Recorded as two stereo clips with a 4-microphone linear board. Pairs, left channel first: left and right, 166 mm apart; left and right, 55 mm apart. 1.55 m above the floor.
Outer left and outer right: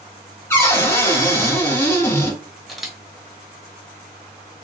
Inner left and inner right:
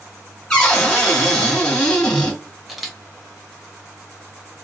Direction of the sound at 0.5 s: 15° left (ahead or behind).